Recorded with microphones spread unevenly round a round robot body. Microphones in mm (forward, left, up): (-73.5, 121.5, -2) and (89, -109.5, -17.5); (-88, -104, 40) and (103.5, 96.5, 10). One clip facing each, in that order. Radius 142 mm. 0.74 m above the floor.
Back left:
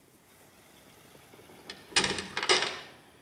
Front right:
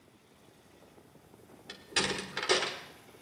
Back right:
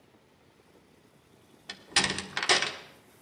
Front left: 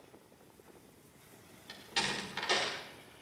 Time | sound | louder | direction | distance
1.7 | a door slam | back left 1 dB, back right 6 dB | 155° right | 1.4 m